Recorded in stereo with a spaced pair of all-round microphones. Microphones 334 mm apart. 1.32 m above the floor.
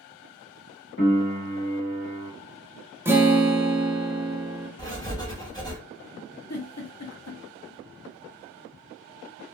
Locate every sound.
1.0 s a piano: 40° left (ahead or behind), 1.1 m
3.0 s a guitar: 5° right (ahead or behind), 0.5 m
4.8 s writing: 10° left (ahead or behind), 0.9 m
6.5 s a giggle: 50° left (ahead or behind), 0.6 m